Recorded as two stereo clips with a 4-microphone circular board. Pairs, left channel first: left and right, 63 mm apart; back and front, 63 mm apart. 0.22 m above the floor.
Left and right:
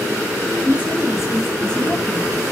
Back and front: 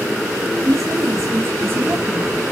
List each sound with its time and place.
0.7 s a woman speaking: 25° right, 2 m; by 2.4 s 70° left, 1.7 m